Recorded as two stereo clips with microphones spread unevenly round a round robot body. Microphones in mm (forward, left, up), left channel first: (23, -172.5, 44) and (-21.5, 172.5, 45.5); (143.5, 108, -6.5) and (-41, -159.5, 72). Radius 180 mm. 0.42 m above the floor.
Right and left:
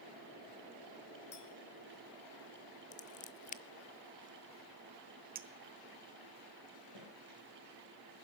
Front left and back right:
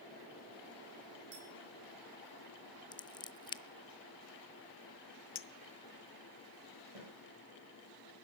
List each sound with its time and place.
1.3 s a clink: 145° right, 5.5 m
2.9 s scissors: 15° right, 0.7 m
5.3 s a clink: 40° left, 1.0 m
7.0 s a snare drum: 125° right, 8.5 m